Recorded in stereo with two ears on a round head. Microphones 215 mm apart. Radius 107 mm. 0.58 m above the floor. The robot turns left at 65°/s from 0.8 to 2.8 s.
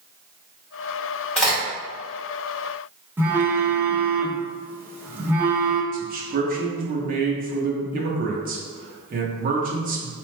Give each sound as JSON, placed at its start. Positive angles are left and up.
{"t": 1.4, "sound": "a crack", "side_deg": 5, "distance_m": 1.9}
{"t": 3.2, "sound": "a phone buzzing", "side_deg": -10, "distance_m": 0.6}
{"t": 5.9, "sound": "a man speaking", "side_deg": -35, "distance_m": 0.7}